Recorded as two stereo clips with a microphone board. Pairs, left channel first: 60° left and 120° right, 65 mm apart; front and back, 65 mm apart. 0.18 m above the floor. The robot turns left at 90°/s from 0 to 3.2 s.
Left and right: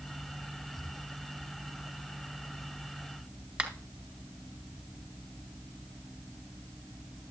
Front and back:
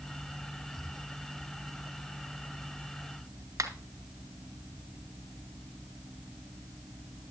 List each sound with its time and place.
3.6 s a finger snap: 170° left, 1.8 m